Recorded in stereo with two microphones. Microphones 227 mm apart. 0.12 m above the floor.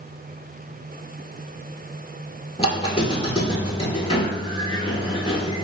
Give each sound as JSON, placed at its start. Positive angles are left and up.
{"t": 2.6, "sound": "a squeak", "side_deg": 30, "distance_m": 0.6}